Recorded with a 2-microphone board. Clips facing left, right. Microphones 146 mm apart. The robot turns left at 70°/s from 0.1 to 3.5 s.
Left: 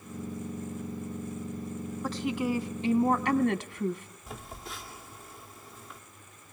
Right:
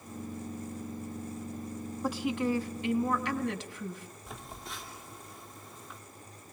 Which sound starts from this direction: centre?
A phone buzzing, at 4.3 s.